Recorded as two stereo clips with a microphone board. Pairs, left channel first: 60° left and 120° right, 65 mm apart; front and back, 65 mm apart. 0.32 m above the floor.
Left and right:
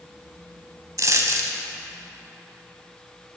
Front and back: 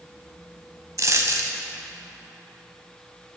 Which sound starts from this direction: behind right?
A dropped coin, at 1.0 s.